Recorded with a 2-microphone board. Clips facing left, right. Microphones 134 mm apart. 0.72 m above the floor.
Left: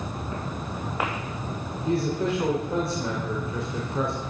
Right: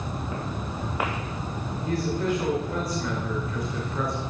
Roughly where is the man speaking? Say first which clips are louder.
Left 2 dB; left.